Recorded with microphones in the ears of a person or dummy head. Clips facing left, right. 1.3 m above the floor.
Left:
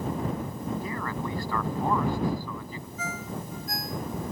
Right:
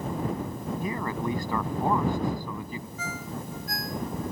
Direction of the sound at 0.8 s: 10° right (ahead or behind).